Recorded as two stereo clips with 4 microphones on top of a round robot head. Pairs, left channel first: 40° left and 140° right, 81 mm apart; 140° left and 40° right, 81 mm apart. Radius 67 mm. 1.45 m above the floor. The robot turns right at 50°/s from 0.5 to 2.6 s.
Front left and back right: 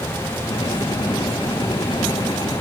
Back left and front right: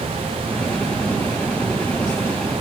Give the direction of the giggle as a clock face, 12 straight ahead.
No giggle in this recording.